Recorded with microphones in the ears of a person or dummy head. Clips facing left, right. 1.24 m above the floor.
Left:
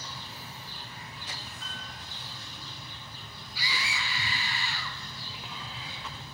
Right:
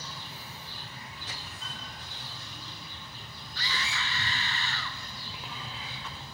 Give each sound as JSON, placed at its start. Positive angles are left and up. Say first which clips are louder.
{"t": 1.6, "sound": "a piano", "louder": "even", "side_deg": -35, "distance_m": 6.0}
{"t": 3.5, "sound": "a scream", "louder": "even", "side_deg": 5, "distance_m": 2.0}